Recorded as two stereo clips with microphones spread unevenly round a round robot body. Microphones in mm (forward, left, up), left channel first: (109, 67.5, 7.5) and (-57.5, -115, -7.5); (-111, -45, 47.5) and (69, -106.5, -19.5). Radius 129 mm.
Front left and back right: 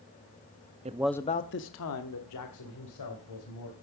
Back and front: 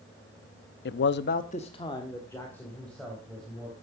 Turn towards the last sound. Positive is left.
turn(degrees=70)